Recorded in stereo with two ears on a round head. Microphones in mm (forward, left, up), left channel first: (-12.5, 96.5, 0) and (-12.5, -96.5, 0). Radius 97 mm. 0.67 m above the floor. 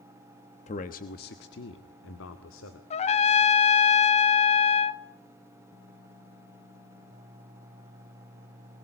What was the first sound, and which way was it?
A man speaking, 30° left (ahead or behind).